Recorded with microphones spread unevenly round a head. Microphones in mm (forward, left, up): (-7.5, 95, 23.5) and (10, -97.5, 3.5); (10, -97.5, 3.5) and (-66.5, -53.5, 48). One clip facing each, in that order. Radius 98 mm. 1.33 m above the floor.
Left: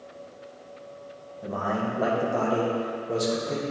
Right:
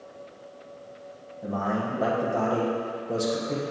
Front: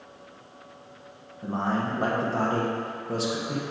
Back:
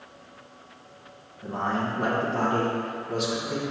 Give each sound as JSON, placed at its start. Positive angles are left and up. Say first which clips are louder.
{"t": 1.4, "sound": "a man speaking", "louder": "even, even", "azimuth_deg": 0, "distance_m": 1.3}